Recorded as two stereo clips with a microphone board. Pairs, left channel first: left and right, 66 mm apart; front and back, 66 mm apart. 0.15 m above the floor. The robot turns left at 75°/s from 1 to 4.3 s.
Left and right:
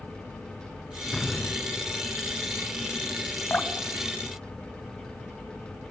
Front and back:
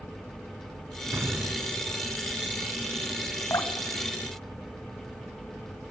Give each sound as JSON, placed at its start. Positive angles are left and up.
{"t": 1.1, "sound": "an explosion", "azimuth_deg": 165, "distance_m": 1.5}
{"t": 3.5, "sound": "dripping", "azimuth_deg": 30, "distance_m": 0.9}